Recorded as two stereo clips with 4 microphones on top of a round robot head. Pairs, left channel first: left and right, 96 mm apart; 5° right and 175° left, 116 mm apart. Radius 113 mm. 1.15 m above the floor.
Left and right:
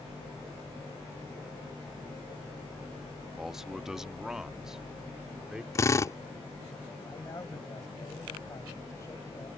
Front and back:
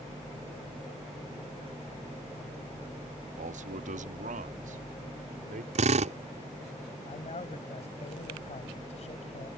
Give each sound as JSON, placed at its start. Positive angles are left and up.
{"t": 3.4, "sound": "a man speaking", "azimuth_deg": -175}
{"t": 5.8, "sound": "a drill", "azimuth_deg": 150}
{"t": 7.0, "sound": "a man speaking", "azimuth_deg": 25}